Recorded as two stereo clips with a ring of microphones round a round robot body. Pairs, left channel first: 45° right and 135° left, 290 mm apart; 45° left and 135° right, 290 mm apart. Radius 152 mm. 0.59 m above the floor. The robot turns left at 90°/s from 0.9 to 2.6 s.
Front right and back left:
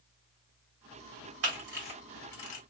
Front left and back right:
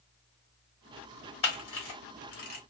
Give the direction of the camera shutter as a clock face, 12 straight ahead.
8 o'clock.